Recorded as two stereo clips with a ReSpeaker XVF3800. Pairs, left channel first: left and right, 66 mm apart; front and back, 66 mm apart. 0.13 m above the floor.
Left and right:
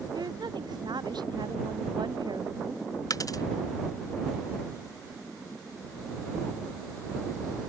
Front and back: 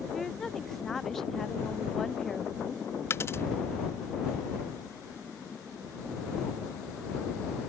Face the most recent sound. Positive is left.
turn(degrees=55)